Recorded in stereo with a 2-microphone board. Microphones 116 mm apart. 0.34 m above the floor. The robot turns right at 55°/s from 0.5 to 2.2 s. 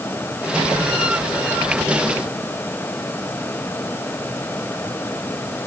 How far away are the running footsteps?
I don't hear running footsteps.